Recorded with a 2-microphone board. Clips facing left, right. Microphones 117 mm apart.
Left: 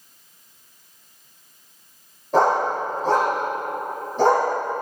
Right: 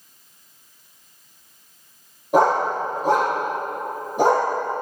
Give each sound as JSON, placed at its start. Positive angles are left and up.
{"t": 2.3, "sound": "a dog barking", "side_deg": -10, "distance_m": 4.5}